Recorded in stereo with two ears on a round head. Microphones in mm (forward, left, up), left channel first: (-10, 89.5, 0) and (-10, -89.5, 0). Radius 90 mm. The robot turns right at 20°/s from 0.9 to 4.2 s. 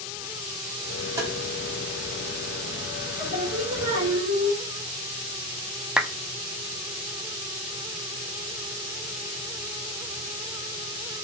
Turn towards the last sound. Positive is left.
turn(degrees=-5)  # may be behind; listen again after turning